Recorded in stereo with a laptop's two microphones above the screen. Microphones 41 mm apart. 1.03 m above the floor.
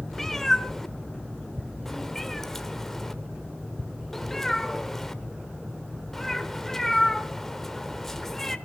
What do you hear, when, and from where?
0.1 s a cat meowing: 5° left (ahead or behind), 0.9 m